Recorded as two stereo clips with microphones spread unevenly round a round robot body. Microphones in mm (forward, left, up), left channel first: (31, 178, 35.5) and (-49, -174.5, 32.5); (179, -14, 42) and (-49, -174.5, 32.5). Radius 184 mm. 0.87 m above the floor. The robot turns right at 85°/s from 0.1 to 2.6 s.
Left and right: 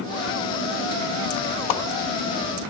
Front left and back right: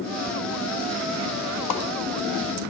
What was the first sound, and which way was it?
A whoosh, 50° left.